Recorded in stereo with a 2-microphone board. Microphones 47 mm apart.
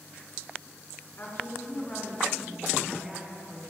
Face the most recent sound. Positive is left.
turn(degrees=-30)  # may be behind; listen again after turning